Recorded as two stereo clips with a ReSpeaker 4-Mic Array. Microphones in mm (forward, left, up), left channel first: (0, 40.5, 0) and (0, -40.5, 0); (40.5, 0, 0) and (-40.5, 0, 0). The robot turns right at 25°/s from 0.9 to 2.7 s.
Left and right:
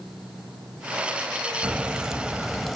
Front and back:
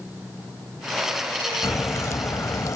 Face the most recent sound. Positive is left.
turn(degrees=5)